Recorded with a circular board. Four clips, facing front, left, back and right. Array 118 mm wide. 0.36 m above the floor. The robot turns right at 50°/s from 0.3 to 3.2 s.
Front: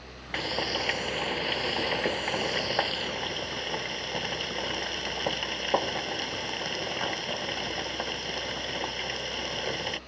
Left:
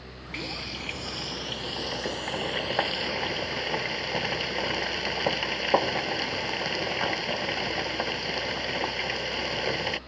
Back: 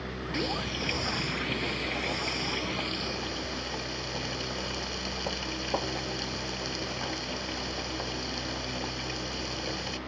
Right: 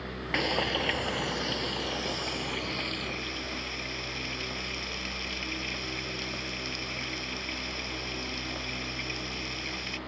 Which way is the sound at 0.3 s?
70° right.